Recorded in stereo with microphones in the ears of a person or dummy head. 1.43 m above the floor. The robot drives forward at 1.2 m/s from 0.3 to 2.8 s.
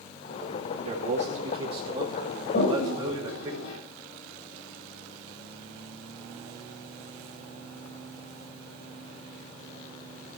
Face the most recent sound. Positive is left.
turn(degrees=70)  # may be behind; listen again after turning